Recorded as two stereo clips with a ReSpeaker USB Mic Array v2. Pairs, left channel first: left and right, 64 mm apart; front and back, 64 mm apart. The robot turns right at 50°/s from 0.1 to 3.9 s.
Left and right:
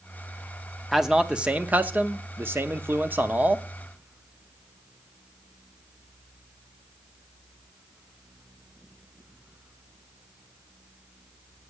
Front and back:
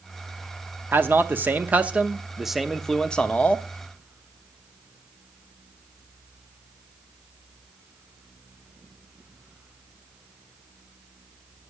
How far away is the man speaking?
About 0.7 m.